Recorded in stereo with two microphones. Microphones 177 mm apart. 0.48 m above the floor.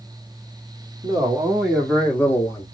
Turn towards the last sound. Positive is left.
turn(degrees=20)  # may be behind; listen again after turning